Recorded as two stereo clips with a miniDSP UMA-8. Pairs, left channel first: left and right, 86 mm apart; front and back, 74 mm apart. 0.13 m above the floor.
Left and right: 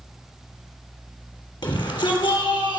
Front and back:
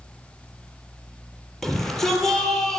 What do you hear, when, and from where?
1.6 s a shout: 85° left, 3 m